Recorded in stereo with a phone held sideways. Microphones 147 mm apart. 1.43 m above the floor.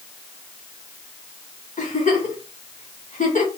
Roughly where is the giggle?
Left.